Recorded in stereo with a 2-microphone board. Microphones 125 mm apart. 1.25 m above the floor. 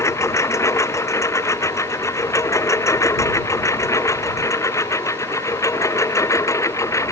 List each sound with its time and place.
0.0 s a lawn mower: 25° left (ahead or behind)